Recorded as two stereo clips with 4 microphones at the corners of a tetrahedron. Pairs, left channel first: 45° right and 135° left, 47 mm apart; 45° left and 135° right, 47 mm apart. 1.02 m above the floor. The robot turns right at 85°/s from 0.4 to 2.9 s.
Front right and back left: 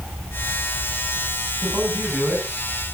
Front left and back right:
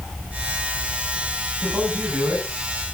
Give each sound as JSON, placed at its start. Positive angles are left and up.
{"t": 1.6, "sound": "a man speaking", "azimuth_deg": 135, "distance_m": 7.0}